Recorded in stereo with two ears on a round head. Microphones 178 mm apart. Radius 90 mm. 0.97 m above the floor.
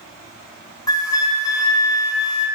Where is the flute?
20° left (ahead or behind), 0.7 m.